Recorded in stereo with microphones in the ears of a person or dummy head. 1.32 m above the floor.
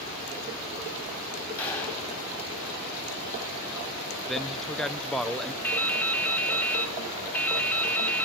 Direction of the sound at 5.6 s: 10° left (ahead or behind).